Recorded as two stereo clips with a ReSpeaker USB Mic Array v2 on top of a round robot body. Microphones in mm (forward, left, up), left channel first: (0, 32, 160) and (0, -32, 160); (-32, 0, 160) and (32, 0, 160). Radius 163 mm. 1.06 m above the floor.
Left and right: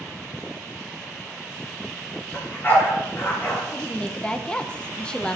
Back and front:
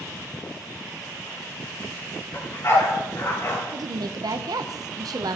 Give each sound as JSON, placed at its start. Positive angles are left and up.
{"t": 2.3, "sound": "a dog barking", "azimuth_deg": 140, "distance_m": 5.0}
{"t": 3.7, "sound": "a woman speaking", "azimuth_deg": 15, "distance_m": 0.8}